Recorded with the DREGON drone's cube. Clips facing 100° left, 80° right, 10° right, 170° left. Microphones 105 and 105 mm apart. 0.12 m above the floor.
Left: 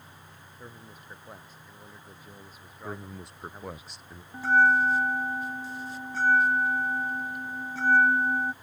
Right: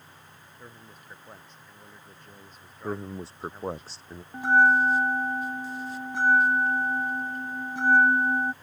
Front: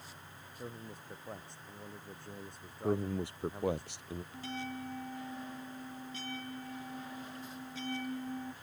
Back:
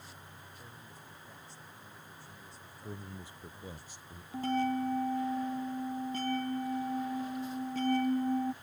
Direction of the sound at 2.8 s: 20° right.